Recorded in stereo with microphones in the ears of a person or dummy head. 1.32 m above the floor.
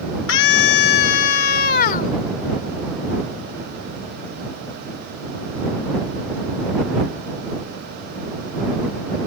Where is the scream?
65° left (ahead or behind); by 2.1 s 45° left (ahead or behind).